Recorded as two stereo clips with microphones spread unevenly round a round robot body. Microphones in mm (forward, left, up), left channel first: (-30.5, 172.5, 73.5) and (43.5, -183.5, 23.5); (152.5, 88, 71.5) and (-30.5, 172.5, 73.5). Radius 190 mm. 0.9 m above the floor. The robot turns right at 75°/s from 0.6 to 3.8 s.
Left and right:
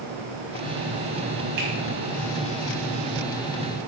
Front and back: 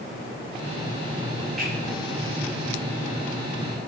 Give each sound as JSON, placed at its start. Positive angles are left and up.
{"t": 1.6, "sound": "a finger snap", "azimuth_deg": -115, "distance_m": 6.0}